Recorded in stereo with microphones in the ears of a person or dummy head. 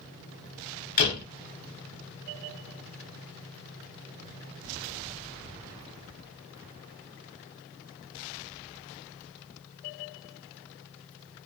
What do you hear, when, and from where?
1.0 s a door slam: 50° left (ahead or behind), 1.1 m